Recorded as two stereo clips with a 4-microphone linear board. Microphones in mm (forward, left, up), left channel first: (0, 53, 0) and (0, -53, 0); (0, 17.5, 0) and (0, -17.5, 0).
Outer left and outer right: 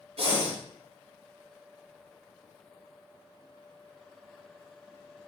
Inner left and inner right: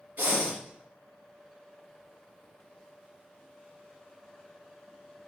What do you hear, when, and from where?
0.2 s breathing: 70° right (ahead or behind), 1.7 m